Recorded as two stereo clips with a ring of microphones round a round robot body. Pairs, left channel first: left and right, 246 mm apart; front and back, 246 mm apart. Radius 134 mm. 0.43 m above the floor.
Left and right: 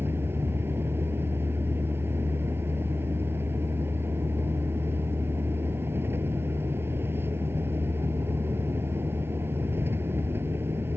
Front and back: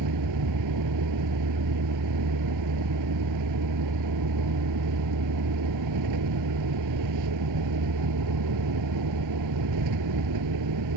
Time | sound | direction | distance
0.0 | a vehicle | 175° right | ?